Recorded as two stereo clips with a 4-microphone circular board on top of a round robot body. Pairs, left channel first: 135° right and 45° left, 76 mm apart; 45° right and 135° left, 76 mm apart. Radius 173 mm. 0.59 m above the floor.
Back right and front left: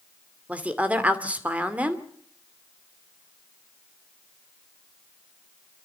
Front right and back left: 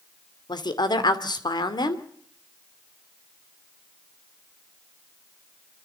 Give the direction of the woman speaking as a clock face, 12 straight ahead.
1 o'clock.